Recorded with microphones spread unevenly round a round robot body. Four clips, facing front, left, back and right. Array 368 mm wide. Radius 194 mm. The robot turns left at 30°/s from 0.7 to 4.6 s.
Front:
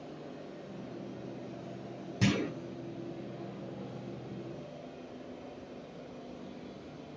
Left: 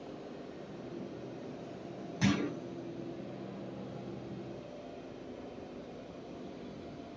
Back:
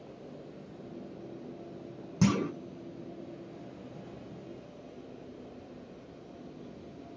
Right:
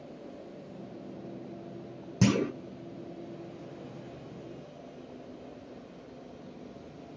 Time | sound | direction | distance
2.2 | a clunk | 100° right | 0.9 m